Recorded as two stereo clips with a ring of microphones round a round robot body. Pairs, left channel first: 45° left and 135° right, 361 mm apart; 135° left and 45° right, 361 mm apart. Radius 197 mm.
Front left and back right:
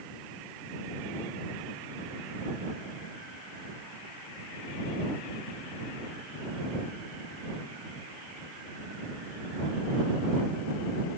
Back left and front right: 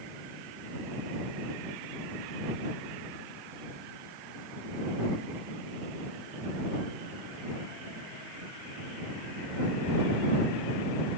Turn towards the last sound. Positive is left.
No sound to turn to.